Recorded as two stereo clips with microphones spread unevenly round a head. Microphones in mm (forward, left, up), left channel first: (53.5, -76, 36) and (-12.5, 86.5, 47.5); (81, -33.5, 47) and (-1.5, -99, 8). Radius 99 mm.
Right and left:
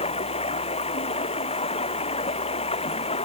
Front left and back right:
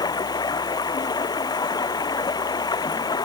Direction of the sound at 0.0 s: 10° right.